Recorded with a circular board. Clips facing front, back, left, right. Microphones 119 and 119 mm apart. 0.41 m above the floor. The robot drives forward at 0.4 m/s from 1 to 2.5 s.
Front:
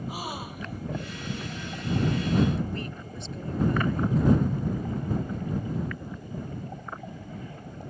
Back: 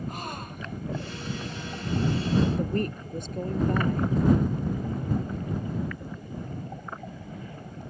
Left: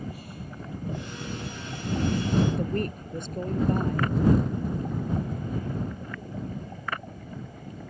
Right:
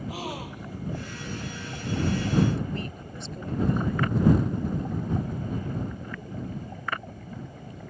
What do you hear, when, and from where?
0.1 s a gasp: 85° right
2.6 s a woman speaking: 135° left